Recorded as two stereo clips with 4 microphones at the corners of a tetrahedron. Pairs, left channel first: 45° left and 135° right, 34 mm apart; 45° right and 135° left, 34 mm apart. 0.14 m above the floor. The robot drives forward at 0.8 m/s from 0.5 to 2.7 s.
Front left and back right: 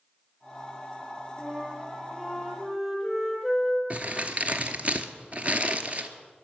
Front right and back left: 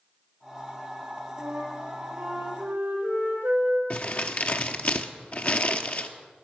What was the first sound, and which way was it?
A flute, 135° left.